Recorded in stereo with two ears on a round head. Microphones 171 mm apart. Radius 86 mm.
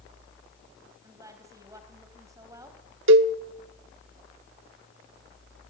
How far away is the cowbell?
About 1.1 m.